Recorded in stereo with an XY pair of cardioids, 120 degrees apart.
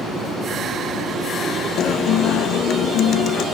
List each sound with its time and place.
1.8 s a guitar: 65° left, 0.8 m